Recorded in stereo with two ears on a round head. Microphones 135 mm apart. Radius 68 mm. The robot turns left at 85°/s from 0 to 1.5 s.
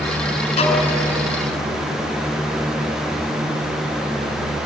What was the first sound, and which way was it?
A violin, 40° left (ahead or behind).